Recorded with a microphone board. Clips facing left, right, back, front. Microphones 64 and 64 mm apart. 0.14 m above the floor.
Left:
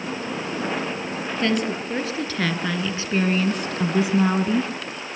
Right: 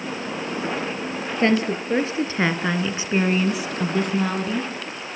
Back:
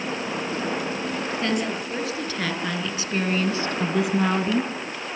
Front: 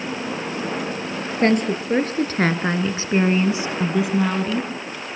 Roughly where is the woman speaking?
Ahead right.